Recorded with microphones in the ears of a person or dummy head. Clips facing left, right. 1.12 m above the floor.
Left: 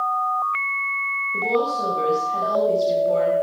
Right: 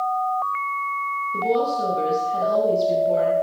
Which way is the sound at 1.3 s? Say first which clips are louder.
Right 1 dB; 10° right (ahead or behind).